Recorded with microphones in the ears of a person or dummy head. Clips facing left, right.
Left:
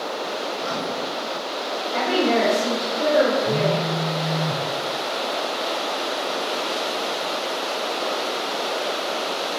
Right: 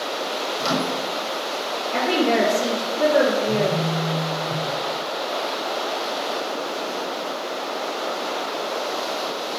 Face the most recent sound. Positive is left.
turn(degrees=80)